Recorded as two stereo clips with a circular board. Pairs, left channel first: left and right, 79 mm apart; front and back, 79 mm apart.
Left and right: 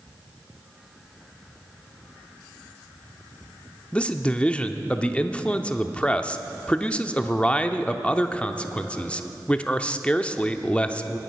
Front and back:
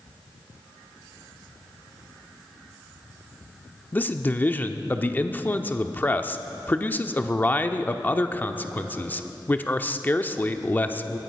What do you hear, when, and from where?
3.9 s a man speaking: 35° left, 0.7 m